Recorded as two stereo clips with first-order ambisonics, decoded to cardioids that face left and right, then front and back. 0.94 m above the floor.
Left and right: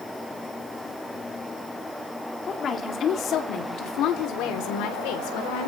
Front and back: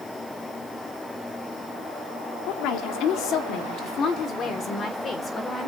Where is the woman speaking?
25° left, 2.5 m; by 5.7 s 75° left, 4 m.